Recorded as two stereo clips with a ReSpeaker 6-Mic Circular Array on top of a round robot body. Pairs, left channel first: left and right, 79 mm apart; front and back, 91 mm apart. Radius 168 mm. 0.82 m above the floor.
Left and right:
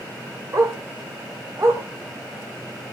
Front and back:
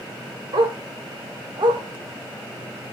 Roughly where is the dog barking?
Behind right.